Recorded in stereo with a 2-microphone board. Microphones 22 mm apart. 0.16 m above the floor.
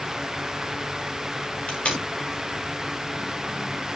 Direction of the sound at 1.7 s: 60° left (ahead or behind).